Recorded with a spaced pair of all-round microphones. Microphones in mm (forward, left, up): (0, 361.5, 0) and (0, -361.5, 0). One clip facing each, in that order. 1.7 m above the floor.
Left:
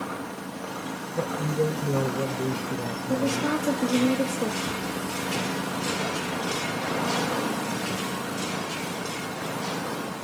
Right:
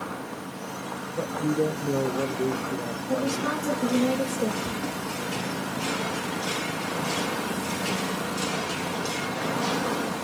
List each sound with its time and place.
1.2 s a man speaking: 30° left (ahead or behind), 1.0 m
3.1 s a woman speaking: 35° right (ahead or behind), 3 m
4.6 s a cupboard door: 25° right (ahead or behind), 6 m